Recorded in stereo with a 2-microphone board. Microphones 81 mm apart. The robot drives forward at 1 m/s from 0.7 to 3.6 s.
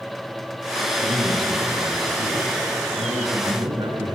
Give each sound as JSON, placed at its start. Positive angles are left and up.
{"t": 1.0, "sound": "a man speaking", "side_deg": -85, "distance_m": 5.5}